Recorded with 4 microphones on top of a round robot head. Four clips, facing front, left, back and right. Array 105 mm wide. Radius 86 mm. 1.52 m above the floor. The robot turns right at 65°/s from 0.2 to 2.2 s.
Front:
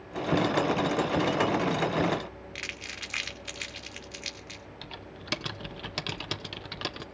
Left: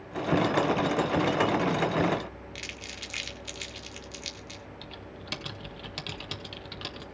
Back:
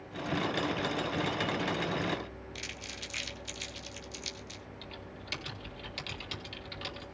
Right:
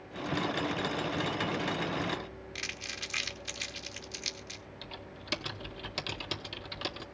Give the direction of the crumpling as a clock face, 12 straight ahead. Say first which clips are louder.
Even, front 3 dB; 1 o'clock.